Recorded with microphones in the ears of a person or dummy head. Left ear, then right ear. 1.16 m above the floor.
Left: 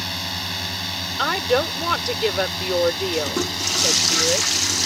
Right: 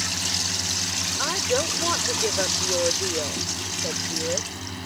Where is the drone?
35° left (ahead or behind); by 4.9 s 40° left (ahead or behind).